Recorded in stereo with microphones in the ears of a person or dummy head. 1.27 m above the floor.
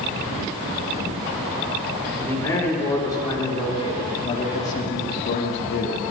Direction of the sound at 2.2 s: 10° left (ahead or behind).